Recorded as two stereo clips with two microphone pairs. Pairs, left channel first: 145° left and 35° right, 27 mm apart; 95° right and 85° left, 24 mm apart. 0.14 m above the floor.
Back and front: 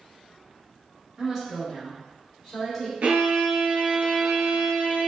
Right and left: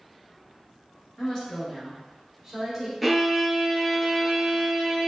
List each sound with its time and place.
1.2 s a woman speaking: 75° right, 1.3 m; by 2.9 s 60° left, 1.2 m
3.0 s a violin: 10° right, 0.5 m